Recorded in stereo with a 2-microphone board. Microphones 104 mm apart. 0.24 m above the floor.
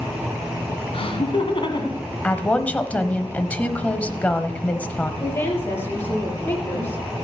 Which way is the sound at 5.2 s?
20° left (ahead or behind).